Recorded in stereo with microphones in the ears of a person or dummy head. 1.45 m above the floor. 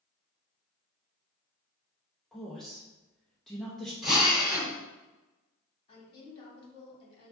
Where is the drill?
Centre (ahead or behind), 1.8 m.